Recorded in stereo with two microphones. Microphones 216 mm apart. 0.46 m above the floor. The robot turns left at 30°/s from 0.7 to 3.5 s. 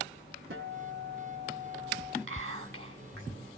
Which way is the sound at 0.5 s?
110° right.